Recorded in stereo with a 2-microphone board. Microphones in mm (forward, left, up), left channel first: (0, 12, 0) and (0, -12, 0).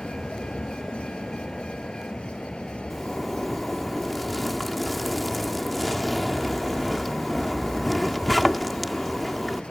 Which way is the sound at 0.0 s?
40° left (ahead or behind).